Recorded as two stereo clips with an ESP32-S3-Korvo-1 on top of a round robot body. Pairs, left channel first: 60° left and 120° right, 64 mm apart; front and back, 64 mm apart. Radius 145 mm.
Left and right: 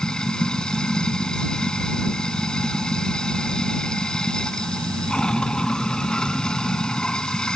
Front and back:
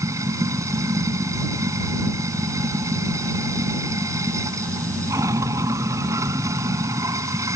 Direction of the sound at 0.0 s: 135° left.